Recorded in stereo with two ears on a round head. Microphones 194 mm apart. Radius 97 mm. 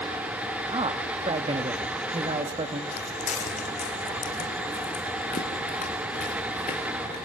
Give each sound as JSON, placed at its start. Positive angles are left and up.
{"t": 0.7, "sound": "a man speaking", "side_deg": -25, "distance_m": 1.6}
{"t": 2.9, "sound": "footsteps", "side_deg": 30, "distance_m": 1.9}